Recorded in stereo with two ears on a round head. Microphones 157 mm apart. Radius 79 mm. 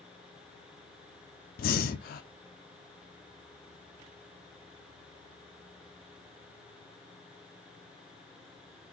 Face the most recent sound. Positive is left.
turn(degrees=50)  # may be behind; listen again after turning